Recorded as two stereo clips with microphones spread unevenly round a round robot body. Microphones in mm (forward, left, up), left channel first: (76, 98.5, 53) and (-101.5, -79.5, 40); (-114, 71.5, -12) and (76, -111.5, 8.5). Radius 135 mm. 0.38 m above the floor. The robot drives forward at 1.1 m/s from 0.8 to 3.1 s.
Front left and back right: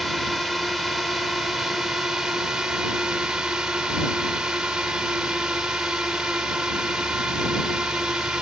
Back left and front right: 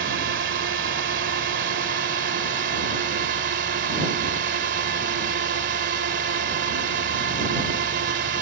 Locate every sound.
0.0 s a drone: 45° right; by 8.4 s 50° right